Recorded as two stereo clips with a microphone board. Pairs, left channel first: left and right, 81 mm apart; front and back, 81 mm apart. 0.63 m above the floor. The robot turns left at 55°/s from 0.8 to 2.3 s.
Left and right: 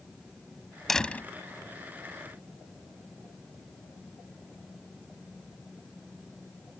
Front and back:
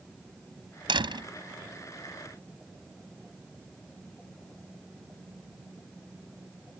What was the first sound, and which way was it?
A door slam, 175° left.